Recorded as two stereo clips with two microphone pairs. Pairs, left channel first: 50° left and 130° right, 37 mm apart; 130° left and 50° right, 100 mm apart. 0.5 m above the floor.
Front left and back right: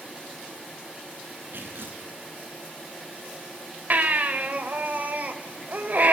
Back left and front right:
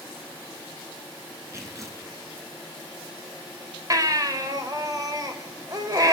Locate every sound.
1.5 s tearing paper: 115° right, 3.5 m
3.9 s a baby crying: 100° right, 1.9 m